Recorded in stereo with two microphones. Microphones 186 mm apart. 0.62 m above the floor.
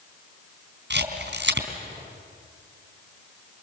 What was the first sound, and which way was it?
A camera shutter, 65° right (ahead or behind).